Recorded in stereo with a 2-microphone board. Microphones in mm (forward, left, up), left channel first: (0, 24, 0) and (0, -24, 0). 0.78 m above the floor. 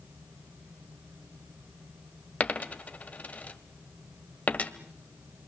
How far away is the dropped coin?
About 1.3 m.